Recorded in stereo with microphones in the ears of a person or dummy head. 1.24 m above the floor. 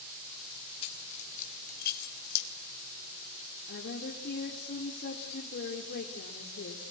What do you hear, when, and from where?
0.8 s keys jangling: 30° left (ahead or behind), 4 m; by 2.5 s 65° left (ahead or behind), 3.5 m
3.7 s a woman speaking: 55° left (ahead or behind), 3.5 m